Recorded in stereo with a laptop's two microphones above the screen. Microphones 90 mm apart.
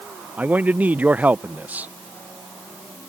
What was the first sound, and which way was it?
A man speaking, 20° right (ahead or behind).